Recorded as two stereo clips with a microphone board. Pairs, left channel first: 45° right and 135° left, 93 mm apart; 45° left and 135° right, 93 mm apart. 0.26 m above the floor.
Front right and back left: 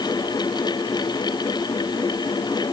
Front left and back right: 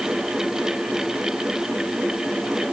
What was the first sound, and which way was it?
Only background noise.